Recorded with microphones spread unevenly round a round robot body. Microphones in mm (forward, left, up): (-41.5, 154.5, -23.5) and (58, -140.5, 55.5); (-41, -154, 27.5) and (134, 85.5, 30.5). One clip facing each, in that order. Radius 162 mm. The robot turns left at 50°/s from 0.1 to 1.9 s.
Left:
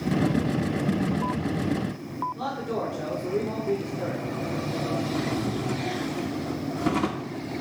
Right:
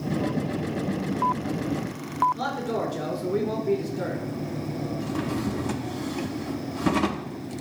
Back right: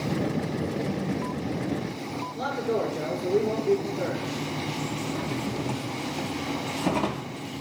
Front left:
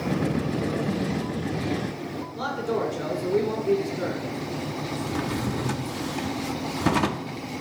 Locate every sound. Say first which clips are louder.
2.4 s a man speaking: right 1 dB, even; 25° right, 2.5 m
5.0 s a drawer: left 1 dB, front left 5 dB; straight ahead, 0.6 m